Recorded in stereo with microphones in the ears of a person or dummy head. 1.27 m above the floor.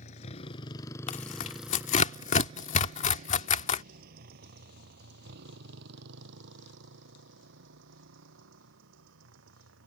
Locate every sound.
0.0 s a motorcycle: 45° left (ahead or behind); by 9.9 s 75° right (ahead or behind)
1.1 s tearing paper: 40° left (ahead or behind)